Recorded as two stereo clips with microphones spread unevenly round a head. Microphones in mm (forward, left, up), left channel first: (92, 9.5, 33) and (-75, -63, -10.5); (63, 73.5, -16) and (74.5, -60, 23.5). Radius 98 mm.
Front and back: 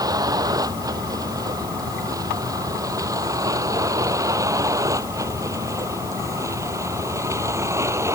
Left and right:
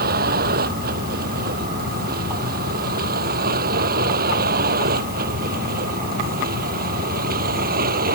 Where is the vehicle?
85° right; by 8.2 s 80° right.